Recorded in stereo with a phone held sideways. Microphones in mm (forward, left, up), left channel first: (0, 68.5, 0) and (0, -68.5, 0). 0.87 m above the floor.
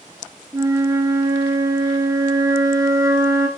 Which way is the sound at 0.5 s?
25° right (ahead or behind).